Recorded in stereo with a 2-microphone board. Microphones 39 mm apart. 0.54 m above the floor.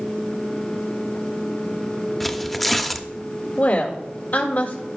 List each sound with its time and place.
2.2 s tearing paper: centre (ahead or behind), 0.6 m
3.6 s a woman speaking: 55° left (ahead or behind), 1.9 m